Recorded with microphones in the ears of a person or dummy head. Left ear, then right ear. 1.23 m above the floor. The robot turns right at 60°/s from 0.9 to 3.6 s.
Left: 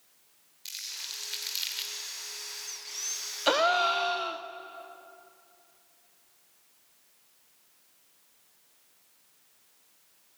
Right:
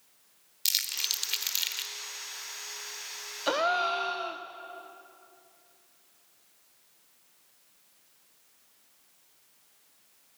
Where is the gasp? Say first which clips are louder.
Left 3 dB; 20° left (ahead or behind), 0.6 m; by 4.4 s 10° left (ahead or behind), 0.6 m.